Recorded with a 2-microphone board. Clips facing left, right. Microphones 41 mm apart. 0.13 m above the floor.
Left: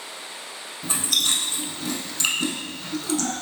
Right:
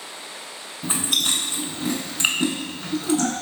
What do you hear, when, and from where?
0.8 s chewing: 25° right (ahead or behind), 0.5 m